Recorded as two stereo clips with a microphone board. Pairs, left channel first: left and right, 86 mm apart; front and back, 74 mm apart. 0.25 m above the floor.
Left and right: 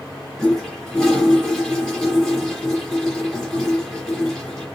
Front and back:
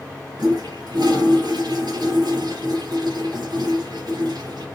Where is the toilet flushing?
175° left, 1.8 m.